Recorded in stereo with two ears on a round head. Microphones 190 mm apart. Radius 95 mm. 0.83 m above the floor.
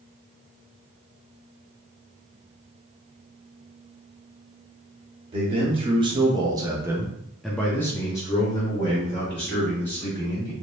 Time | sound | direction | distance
5.3 | a man speaking | 25° right (ahead or behind) | 1.3 m